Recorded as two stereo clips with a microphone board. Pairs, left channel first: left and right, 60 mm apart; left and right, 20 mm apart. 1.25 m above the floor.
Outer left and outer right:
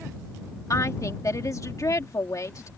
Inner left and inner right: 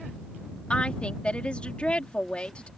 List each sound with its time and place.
0.7 s a woman speaking: 65° left (ahead or behind)